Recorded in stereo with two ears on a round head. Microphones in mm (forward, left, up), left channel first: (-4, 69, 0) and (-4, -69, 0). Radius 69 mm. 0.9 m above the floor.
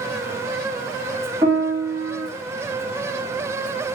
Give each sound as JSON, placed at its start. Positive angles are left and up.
{"t": 1.4, "sound": "a piano", "side_deg": -25, "distance_m": 2.0}